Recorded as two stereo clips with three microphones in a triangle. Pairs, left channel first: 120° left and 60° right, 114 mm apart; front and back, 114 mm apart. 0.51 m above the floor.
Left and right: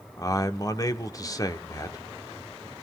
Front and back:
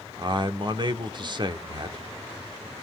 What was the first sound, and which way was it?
A man speaking, 160° left.